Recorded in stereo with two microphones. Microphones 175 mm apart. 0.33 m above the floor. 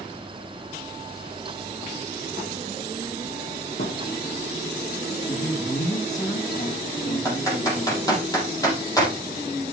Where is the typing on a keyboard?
20° left (ahead or behind), 4.5 m.